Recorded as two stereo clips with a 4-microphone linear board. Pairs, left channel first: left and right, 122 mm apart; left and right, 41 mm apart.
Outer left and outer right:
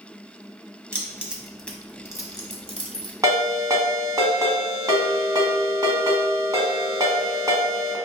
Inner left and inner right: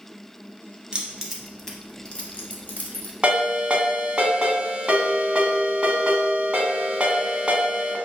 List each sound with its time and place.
0.9 s keys jangling: 20° right (ahead or behind), 0.9 m; by 3.1 s 50° left (ahead or behind), 1.3 m
3.2 s a ringtone: 30° right (ahead or behind), 1.2 m